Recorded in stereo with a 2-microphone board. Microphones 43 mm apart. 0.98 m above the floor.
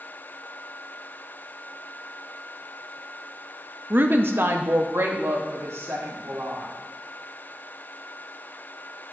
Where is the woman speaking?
50° right (ahead or behind), 0.7 m; by 6.7 s 80° right, 3 m.